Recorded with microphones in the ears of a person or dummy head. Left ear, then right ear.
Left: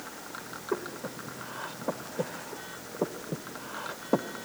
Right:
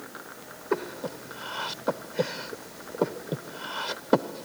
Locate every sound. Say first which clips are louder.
0.7 s breathing: right 5 dB; 75° right (ahead or behind)